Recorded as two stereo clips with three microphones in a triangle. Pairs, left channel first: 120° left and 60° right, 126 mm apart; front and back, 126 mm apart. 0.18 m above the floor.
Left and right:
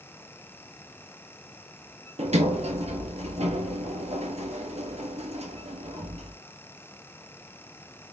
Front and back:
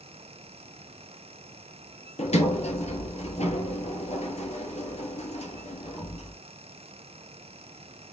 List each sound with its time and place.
2.2 s a sliding door: 30° right, 0.9 m